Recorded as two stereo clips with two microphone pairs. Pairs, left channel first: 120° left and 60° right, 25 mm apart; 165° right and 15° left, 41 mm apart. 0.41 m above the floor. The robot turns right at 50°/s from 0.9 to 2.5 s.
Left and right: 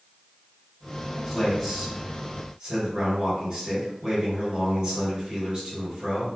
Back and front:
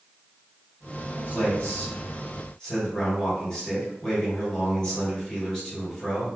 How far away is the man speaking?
About 1.8 m.